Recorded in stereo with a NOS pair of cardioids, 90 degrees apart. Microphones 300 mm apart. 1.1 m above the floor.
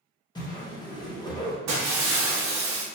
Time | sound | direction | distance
0.3 | a whoosh | 15° left | 1.1 m
1.7 | breaking glass | 60° right | 1.1 m